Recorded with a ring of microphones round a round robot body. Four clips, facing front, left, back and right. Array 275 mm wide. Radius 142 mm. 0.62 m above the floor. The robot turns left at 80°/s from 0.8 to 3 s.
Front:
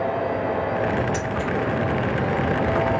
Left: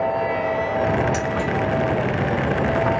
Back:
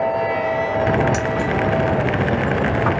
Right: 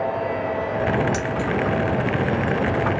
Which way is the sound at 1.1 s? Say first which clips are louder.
Left 1 dB, back 5 dB; 145° right.